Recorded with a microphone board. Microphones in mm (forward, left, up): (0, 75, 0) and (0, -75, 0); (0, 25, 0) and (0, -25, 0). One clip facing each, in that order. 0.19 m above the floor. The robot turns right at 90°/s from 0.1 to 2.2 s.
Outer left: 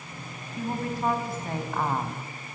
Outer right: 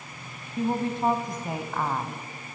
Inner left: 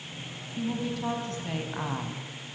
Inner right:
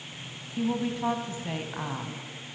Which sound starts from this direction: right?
A woman speaking, at 0.6 s.